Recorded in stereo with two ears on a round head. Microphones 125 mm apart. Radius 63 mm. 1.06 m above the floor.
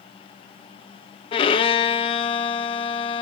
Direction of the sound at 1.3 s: 40° left (ahead or behind).